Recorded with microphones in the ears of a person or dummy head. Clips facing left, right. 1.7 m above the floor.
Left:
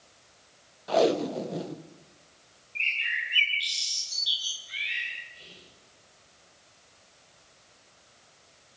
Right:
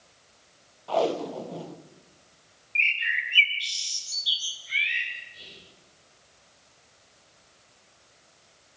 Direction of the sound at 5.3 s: 15° right (ahead or behind).